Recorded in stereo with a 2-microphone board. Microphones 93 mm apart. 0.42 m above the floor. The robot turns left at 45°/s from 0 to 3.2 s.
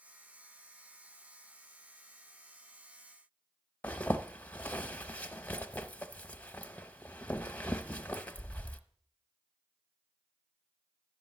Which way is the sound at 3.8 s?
15° left (ahead or behind).